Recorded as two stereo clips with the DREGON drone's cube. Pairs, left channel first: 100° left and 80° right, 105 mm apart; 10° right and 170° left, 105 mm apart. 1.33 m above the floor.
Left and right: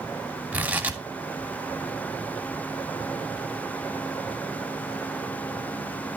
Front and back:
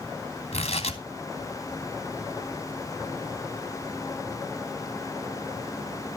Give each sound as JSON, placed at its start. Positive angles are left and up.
{"t": 0.5, "sound": "tearing paper", "azimuth_deg": 0, "distance_m": 3.0}